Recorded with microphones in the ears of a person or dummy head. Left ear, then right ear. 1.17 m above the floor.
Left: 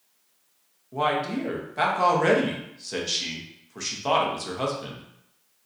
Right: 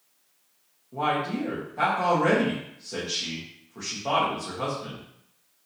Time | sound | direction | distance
0.9 | a man speaking | 60° left (ahead or behind) | 1.0 m